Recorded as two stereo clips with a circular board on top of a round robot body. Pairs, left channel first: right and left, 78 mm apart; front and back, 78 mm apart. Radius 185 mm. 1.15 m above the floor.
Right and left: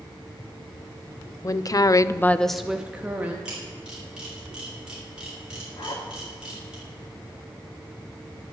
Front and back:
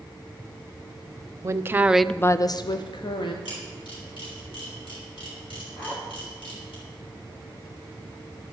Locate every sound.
1.4 s a woman speaking: 130° right, 0.8 m; by 3.4 s 20° left, 1.2 m
3.5 s a camera shutter: 10° left, 4.5 m
5.8 s a zipper: 65° right, 2.5 m